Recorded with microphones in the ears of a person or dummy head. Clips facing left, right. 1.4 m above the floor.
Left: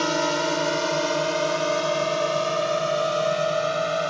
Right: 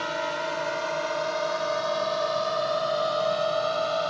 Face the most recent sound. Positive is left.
turn(degrees=25)  # may be behind; listen again after turning